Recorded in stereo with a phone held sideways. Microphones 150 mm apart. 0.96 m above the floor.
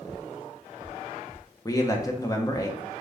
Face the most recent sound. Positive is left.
turn(degrees=25)  # may be behind; listen again after turning